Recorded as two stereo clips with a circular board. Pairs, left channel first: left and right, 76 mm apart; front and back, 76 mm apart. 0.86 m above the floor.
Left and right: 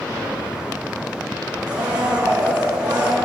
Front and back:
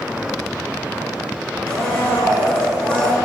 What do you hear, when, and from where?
1.7 s a blender: 70° right, 2.5 m